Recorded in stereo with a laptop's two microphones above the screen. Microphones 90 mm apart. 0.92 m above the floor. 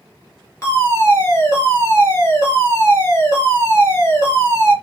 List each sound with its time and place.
0.6 s a fire alarm: 30° left (ahead or behind), 3 m